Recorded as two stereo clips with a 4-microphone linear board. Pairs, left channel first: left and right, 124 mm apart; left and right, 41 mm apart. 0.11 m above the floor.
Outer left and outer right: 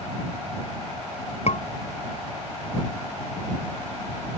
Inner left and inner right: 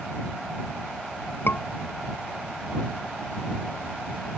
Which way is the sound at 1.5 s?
60° left (ahead or behind).